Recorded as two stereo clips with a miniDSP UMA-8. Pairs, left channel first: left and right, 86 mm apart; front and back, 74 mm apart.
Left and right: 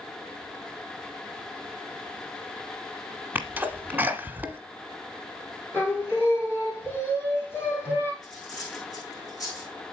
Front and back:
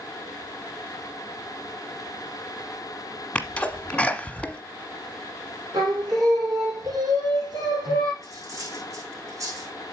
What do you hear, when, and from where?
3.4 s a sneeze: 50° right, 1.1 m
5.7 s singing: 150° left, 3 m
8.2 s cutlery clinking: 135° left, 6 m